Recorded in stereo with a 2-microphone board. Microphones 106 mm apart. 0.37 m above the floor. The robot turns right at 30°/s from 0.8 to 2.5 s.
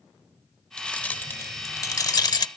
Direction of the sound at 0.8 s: 10° left (ahead or behind).